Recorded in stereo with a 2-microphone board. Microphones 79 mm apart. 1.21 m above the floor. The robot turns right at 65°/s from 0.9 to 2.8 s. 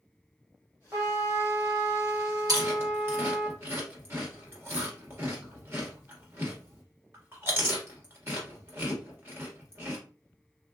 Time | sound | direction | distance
0.9 | a trumpet | 150° right | 1.8 m
2.5 | chewing | 50° right (ahead or behind) | 1.6 m